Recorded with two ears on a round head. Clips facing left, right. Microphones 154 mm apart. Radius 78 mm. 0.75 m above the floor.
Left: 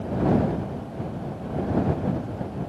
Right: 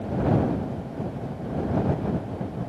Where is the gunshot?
I don't hear a gunshot.